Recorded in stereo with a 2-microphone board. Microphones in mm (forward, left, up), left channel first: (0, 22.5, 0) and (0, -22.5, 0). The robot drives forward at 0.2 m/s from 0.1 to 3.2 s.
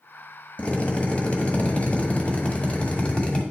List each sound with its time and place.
0.6 s a drill: 30° left (ahead or behind), 1.5 m; by 3.4 s 25° left (ahead or behind), 1.7 m